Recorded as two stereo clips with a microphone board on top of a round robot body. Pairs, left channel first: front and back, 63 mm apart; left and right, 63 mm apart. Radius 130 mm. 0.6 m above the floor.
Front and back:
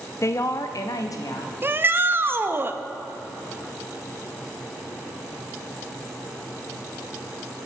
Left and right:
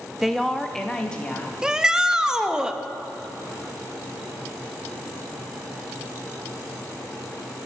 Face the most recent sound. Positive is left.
turn(degrees=-165)